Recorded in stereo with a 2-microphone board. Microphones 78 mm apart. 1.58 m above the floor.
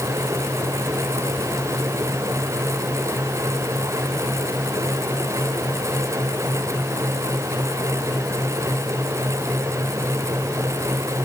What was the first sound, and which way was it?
Only background noise.